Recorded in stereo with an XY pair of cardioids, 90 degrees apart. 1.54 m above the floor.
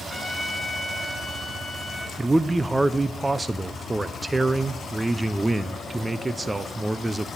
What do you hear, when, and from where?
0.1 s a trumpet: 10° left, 5 m
2.2 s a man speaking: 20° right, 0.6 m